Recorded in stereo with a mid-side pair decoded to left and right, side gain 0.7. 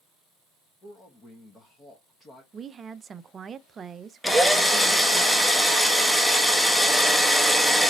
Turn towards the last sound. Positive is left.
turn(degrees=5)